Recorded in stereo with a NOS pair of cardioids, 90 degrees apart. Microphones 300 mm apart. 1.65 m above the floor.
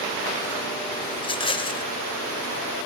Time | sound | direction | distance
1.2 | a rattle | 15° left | 1.2 m